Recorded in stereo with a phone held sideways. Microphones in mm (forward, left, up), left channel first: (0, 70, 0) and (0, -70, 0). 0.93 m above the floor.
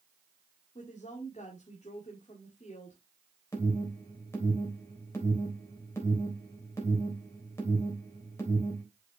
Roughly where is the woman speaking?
Left.